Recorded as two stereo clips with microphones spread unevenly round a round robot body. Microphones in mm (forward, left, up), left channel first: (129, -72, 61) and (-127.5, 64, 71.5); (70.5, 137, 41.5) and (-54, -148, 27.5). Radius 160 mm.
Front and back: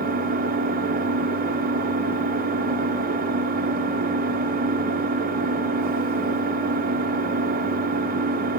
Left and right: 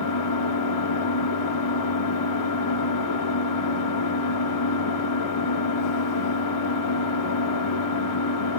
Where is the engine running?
90° left, 1.5 m.